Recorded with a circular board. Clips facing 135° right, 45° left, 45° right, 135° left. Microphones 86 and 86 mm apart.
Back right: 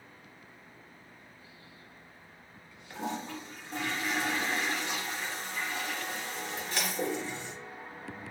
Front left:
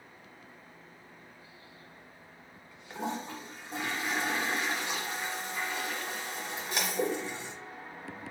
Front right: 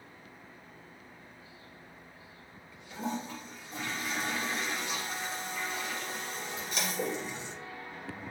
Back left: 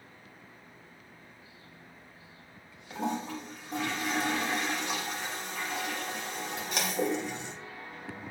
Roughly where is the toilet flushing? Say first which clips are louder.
Even, back left 3 dB; behind left.